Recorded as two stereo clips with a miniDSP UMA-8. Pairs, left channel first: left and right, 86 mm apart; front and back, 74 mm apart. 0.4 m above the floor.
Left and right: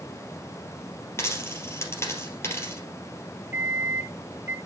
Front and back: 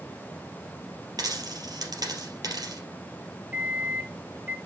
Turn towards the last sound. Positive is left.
turn(degrees=-130)